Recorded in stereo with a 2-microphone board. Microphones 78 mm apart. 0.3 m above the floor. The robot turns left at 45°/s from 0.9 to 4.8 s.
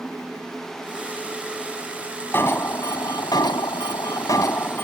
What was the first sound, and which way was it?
An alarm, 145° left.